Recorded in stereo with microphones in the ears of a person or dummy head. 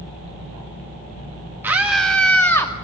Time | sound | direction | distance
1.6 | a scream | 10° right (ahead or behind) | 1.9 m